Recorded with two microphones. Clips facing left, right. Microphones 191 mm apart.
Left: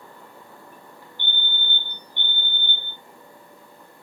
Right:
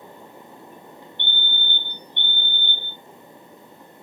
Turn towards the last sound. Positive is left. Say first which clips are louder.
# even
turn(degrees=35)  # may be behind; listen again after turning